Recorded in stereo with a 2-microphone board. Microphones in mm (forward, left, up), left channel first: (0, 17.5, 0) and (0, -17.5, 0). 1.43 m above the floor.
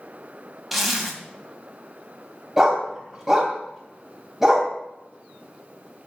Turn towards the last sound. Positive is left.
turn(degrees=-10)  # may be behind; listen again after turning